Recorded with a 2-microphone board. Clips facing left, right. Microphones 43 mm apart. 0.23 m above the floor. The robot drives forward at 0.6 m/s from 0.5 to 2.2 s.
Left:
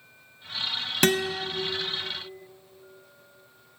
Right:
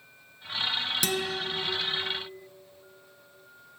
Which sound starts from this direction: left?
A guitar, at 1.0 s.